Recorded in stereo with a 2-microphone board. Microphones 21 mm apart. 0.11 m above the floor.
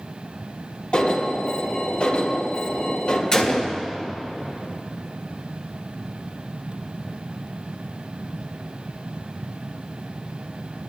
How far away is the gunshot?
About 2 m.